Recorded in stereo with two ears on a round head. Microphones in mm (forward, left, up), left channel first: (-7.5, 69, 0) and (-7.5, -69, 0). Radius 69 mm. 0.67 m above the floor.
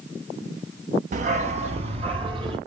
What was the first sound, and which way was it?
A dog barking, 50° right (ahead or behind).